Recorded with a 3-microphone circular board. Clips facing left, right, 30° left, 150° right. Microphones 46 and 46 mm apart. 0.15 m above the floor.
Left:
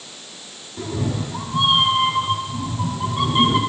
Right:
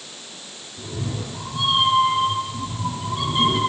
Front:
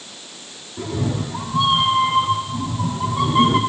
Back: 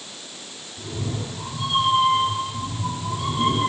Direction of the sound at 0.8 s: 50° left.